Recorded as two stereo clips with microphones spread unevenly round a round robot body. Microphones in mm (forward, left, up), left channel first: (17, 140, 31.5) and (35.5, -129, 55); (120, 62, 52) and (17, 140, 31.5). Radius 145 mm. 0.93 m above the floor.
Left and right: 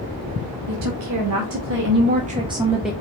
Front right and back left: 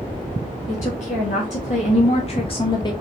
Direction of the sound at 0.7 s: 75° right.